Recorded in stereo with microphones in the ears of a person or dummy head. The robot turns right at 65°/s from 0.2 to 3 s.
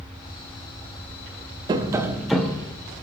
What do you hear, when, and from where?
1.7 s tapping: 40° right, 0.7 m; by 2.7 s 25° left, 0.7 m